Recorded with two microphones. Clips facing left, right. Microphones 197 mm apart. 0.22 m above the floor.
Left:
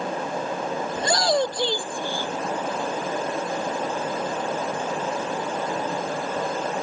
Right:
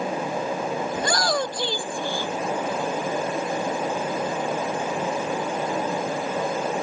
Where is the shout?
25° left (ahead or behind); by 2.3 s 15° left (ahead or behind).